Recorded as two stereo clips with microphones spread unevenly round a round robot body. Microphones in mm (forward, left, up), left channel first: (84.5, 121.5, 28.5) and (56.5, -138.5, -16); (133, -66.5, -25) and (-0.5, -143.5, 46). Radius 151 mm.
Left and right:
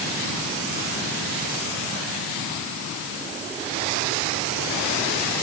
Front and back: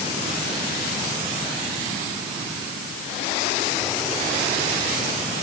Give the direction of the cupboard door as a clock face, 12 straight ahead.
No cupboard door in this recording.